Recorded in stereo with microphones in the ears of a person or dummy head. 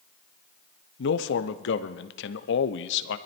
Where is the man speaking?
75° left (ahead or behind), 0.8 m.